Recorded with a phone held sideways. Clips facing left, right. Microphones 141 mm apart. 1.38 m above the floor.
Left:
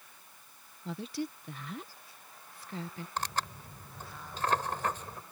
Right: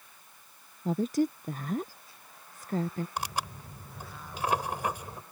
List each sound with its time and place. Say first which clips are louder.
0.8 s a woman speaking: right 10 dB; 45° right (ahead or behind)
3.2 s tearing paper: right 1 dB; 10° right (ahead or behind)